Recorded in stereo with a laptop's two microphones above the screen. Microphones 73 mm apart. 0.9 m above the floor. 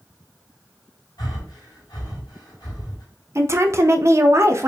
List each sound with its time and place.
1.2 s breathing: 80° left, 2.5 m
3.4 s a woman speaking: 40° right (ahead or behind), 0.6 m